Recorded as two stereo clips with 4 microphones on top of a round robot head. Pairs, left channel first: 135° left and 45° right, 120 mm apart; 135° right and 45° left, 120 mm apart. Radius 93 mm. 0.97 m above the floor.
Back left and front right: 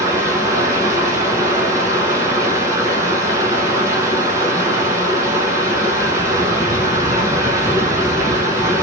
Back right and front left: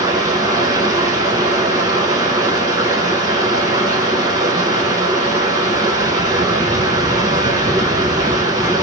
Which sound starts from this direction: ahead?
Running water, at 0.0 s.